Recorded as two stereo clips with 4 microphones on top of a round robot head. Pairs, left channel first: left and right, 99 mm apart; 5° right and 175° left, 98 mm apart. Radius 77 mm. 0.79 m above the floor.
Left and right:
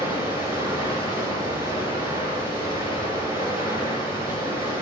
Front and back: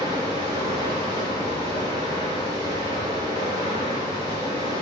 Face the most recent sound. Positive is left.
turn(degrees=-150)